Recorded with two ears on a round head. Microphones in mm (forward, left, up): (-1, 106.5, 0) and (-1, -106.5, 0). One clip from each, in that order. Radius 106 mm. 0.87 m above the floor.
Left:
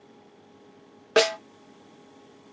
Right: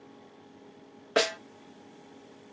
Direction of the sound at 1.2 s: 15° left (ahead or behind).